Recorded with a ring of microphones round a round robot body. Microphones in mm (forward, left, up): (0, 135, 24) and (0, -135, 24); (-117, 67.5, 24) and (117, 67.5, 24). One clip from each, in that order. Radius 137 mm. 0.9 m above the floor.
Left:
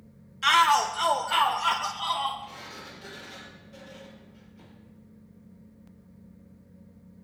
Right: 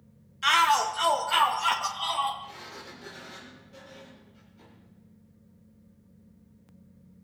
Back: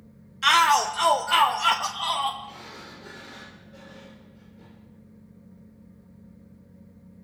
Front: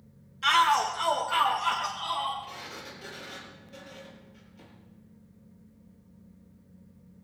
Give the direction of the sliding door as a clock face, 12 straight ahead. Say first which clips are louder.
Left 1 dB, even; 12 o'clock.